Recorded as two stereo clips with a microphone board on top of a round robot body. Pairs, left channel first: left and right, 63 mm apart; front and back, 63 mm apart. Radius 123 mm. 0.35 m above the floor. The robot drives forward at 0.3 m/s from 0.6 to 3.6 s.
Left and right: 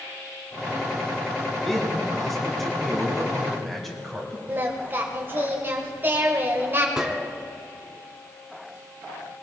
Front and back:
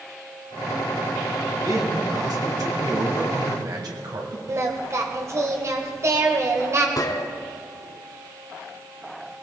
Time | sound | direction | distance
1.6 | a man speaking | straight behind | 3 m
4.5 | singing | 145° right | 1.9 m
7.0 | a gunshot | 10° right | 1.4 m